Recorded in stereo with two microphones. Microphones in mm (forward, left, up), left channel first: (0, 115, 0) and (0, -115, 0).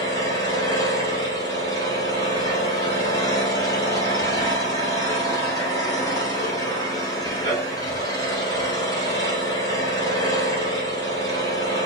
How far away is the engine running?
About 2 m.